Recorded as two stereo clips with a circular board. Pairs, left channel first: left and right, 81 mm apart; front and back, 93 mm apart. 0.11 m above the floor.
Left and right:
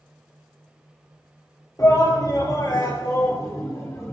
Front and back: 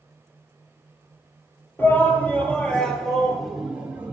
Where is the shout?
60° left, 3 m; by 4.1 s 120° left, 2 m.